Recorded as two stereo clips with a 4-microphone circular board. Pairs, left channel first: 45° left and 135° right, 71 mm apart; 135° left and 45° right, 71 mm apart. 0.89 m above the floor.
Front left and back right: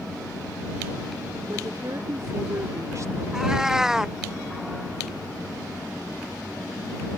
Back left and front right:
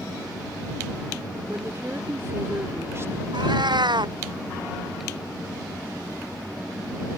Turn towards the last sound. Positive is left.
turn(degrees=-50)